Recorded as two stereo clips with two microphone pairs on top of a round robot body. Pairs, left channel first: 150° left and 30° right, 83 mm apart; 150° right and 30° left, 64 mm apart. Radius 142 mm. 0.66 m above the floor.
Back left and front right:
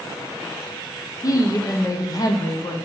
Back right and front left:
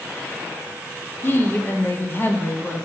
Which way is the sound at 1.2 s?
160° left.